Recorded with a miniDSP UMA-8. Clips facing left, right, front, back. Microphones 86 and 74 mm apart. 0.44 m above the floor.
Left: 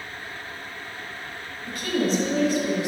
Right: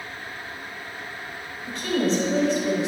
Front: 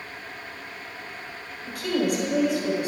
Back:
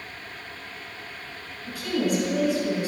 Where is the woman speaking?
5° left, 2 m.